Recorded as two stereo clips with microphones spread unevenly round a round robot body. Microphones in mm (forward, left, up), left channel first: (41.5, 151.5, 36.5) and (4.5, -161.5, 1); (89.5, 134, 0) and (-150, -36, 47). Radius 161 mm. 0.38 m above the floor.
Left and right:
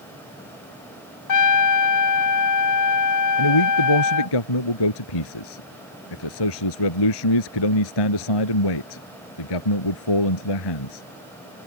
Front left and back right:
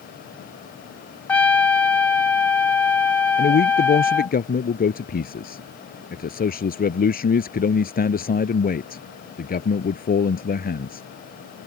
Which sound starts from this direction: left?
A man speaking, at 3.4 s.